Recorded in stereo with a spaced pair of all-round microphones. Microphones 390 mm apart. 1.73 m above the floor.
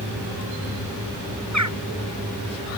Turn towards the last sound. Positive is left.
turn(degrees=-45)  # may be behind; listen again after turning